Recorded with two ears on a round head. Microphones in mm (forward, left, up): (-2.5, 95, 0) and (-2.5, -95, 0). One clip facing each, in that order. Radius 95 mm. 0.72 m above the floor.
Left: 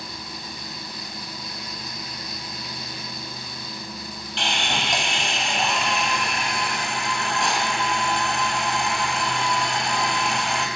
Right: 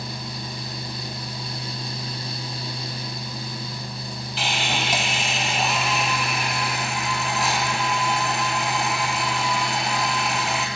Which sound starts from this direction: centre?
Sawing, at 4.4 s.